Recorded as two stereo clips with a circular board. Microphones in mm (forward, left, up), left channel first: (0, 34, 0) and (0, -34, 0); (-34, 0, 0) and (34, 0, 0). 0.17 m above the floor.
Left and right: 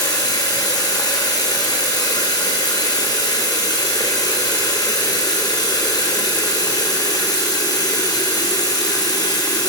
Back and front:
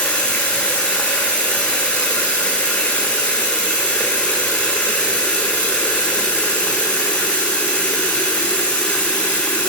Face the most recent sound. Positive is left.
turn(degrees=110)